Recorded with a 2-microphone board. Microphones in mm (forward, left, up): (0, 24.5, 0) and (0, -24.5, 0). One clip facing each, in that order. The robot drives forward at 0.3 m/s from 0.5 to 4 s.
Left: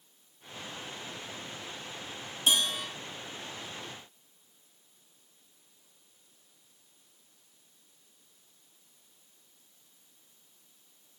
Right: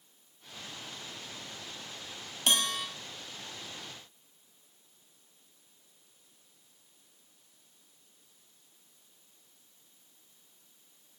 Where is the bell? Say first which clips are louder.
Left 1 dB; 60° right (ahead or behind), 3.5 m.